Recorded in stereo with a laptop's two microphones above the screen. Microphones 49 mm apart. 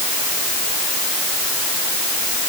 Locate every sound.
Only background noise.